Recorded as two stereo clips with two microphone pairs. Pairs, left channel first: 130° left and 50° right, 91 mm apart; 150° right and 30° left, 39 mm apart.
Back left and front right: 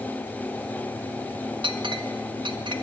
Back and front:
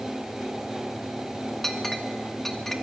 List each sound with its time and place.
1.6 s a clink: 70° right, 1.4 m